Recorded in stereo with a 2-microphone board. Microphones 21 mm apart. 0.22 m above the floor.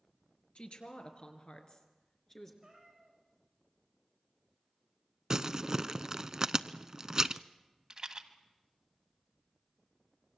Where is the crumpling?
30° right (ahead or behind), 0.6 m.